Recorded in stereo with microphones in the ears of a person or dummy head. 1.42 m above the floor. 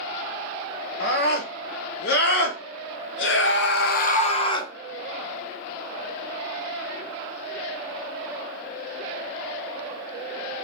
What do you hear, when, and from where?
1.0 s a scream: 55° left (ahead or behind), 1.8 m; by 4.7 s 20° left (ahead or behind), 0.7 m